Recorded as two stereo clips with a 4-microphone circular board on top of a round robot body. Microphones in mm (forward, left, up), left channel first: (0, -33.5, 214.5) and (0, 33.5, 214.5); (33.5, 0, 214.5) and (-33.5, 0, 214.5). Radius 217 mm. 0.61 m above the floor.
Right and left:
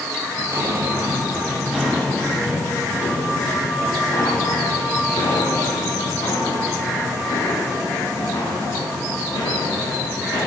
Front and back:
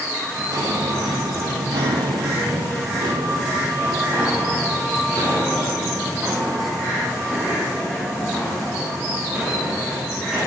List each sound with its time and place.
0.4 s footsteps: 140° left, 1.6 m; by 10.5 s 100° right, 6.5 m